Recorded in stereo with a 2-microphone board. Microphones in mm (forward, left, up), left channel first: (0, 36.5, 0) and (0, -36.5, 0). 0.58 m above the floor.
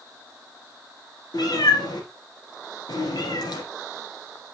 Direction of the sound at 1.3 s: 70° left (ahead or behind).